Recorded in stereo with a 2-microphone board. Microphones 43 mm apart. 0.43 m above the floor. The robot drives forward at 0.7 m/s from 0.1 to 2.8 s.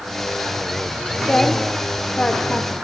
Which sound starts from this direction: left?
A woman speaking, at 1.2 s.